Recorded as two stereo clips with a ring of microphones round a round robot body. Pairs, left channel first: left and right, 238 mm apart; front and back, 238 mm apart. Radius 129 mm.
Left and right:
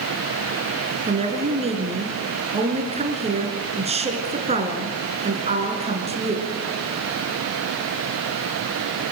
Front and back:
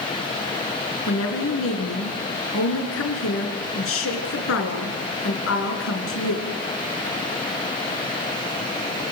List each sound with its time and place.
1.1 s a woman speaking: 25° right, 4 m